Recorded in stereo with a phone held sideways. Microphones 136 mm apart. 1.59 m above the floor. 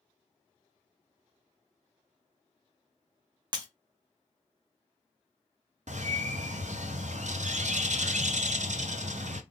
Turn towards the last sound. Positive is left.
turn(degrees=-60)  # may be behind; listen again after turning